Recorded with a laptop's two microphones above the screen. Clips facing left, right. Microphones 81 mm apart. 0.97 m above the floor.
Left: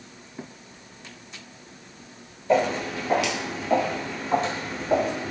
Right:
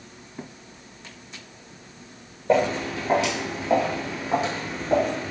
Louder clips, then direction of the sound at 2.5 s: Right 1 dB; 40° right (ahead or behind).